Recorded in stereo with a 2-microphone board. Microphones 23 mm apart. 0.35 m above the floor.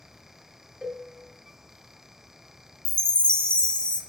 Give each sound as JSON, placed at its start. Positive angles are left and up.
{"t": 0.8, "sound": "a cowbell", "side_deg": -30, "distance_m": 1.9}
{"t": 2.9, "sound": "a chime", "side_deg": 40, "distance_m": 0.7}